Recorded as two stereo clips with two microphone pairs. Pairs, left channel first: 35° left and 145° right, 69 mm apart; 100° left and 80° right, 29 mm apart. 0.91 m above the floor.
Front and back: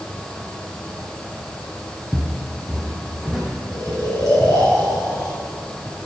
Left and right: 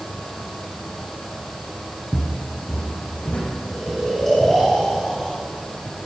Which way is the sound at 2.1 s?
95° left.